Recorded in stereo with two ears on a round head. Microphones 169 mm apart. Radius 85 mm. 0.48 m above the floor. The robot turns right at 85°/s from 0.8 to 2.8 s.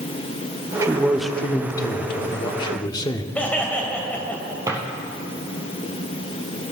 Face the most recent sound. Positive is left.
turn(degrees=-20)  # may be behind; listen again after turning